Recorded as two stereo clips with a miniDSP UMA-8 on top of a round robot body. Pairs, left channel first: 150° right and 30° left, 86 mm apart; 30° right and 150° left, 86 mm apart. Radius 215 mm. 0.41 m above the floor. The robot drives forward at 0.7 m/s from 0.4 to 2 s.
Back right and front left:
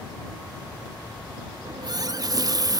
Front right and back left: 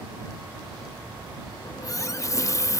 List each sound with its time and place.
1.6 s a running tap: 5° left, 0.6 m; by 2.8 s 10° left, 0.5 m